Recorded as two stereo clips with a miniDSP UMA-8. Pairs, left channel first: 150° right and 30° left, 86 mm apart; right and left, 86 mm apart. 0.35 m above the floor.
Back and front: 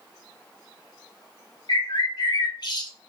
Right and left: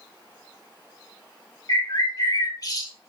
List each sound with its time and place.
1.7 s a bird: 125° right, 1.2 m